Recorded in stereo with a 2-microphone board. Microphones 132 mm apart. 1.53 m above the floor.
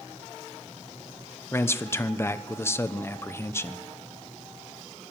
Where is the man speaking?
20° left (ahead or behind), 0.9 m.